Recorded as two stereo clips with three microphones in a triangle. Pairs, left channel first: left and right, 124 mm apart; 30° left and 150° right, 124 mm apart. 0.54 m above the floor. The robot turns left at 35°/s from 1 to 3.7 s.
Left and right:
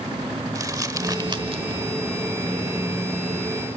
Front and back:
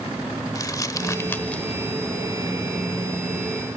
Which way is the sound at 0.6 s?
30° right.